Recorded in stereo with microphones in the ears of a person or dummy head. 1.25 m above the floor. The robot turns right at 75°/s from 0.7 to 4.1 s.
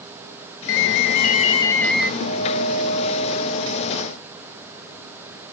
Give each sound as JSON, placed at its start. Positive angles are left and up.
{"t": 0.7, "sound": "an alarm", "azimuth_deg": 85, "distance_m": 1.8}
{"t": 2.2, "sound": "a guitar", "azimuth_deg": 70, "distance_m": 4.0}